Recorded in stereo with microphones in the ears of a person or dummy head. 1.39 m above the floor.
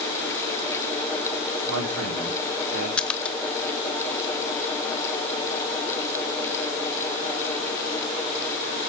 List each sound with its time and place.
1.7 s a man speaking: 70° right (ahead or behind), 4 m
3.0 s a splash: 5° left (ahead or behind), 0.9 m